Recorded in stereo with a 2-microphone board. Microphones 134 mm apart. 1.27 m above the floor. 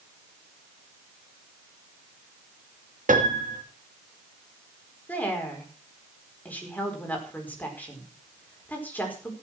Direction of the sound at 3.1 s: 85° right.